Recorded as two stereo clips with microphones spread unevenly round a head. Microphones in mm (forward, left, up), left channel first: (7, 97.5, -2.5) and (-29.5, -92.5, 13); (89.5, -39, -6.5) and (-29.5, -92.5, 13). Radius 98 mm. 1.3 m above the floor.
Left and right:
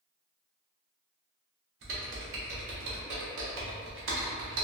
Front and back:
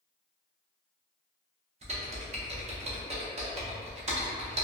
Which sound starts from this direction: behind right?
Typing on a keyboard, at 1.8 s.